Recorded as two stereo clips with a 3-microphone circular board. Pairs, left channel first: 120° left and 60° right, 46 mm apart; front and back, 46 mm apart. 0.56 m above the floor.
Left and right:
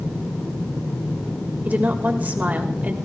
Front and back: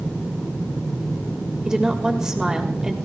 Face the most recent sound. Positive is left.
turn(degrees=-105)